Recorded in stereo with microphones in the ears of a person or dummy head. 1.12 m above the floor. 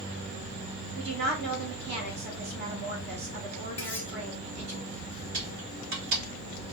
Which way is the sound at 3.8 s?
15° left (ahead or behind).